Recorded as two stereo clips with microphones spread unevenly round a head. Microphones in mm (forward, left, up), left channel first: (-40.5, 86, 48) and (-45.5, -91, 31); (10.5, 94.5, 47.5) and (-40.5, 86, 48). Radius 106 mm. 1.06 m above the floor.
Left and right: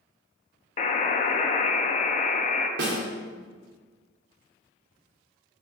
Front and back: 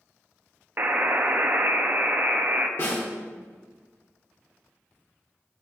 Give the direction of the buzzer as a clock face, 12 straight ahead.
7 o'clock.